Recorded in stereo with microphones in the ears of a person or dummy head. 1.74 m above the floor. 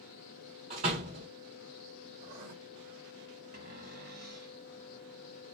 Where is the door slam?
40° right (ahead or behind), 1.4 m.